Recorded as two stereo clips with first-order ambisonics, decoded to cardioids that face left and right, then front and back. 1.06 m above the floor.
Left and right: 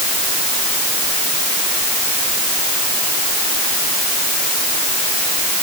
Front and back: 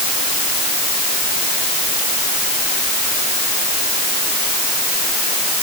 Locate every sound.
Only background noise.